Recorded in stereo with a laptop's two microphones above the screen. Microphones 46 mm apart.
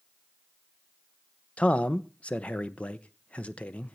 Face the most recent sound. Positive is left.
turn(degrees=25)  # may be behind; listen again after turning